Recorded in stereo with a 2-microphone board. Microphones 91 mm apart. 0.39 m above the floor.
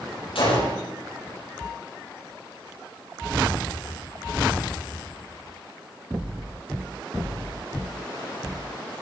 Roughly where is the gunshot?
Left.